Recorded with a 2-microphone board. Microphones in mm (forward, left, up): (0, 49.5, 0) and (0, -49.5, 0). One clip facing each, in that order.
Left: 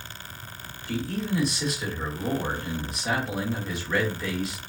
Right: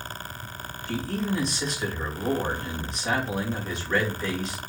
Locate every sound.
0.9 s a man speaking: 5° left (ahead or behind), 1.7 m